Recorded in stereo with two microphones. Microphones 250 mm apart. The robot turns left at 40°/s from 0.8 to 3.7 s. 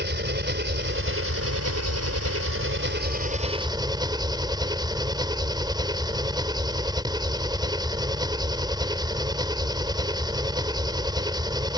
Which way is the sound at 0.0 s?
45° right.